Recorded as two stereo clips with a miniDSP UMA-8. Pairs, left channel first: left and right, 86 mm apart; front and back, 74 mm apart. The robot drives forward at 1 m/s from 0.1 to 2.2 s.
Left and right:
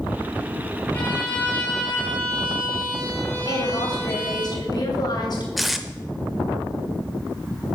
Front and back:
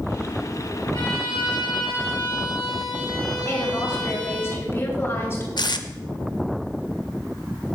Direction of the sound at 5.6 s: Straight ahead.